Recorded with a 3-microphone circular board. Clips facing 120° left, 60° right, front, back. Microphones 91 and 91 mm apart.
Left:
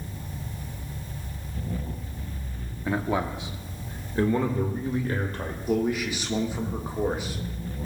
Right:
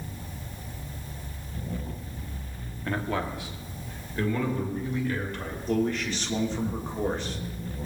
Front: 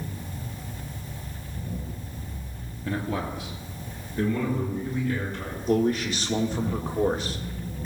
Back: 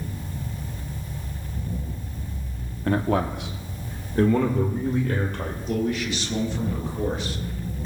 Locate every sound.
2.9 s a man speaking: 165° right, 1.0 m; by 5.6 s 170° left, 2.5 m
5.7 s a man speaking: 40° left, 1.7 m